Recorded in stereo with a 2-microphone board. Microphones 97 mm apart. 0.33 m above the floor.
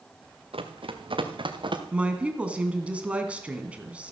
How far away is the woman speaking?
About 2.5 m.